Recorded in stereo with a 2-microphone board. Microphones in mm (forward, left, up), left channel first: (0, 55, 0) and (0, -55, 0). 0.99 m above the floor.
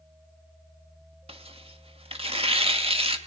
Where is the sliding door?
I don't hear a sliding door.